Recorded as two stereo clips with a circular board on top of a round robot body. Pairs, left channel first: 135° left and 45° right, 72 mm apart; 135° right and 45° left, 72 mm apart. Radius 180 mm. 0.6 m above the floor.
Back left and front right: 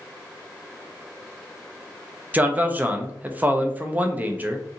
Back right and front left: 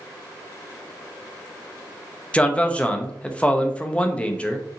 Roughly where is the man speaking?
Right.